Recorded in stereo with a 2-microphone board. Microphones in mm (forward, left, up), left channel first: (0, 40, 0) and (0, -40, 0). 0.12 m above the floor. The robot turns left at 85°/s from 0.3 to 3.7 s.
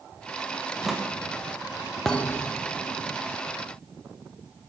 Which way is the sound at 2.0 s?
175° left.